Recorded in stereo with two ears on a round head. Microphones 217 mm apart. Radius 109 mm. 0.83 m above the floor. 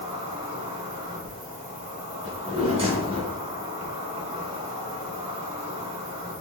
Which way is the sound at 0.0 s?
25° right (ahead or behind).